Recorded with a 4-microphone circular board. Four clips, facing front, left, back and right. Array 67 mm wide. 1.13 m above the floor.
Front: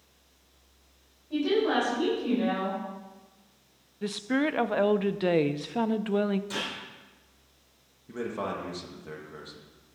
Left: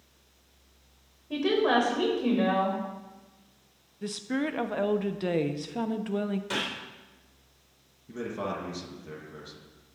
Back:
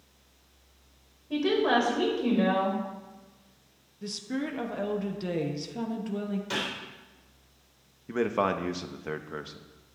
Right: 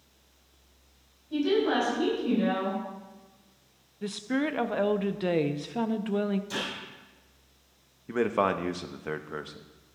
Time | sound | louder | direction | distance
1.3 | a woman speaking | left 1 dB, back 1 dB | 120° left | 4.5 m
4.0 | a woman speaking | right 1 dB, front 6 dB | 10° right | 0.6 m
6.5 | a gunshot | left 2 dB, back 2 dB | 115° left | 3 m
8.1 | a man speaking | right 8 dB, back 6 dB | 120° right | 0.9 m